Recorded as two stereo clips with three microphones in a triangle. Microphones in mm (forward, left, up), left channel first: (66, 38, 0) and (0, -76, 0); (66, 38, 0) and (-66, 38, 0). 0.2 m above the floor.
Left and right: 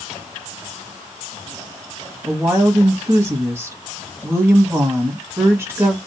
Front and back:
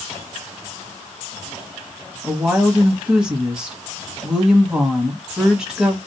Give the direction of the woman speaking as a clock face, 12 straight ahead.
4 o'clock.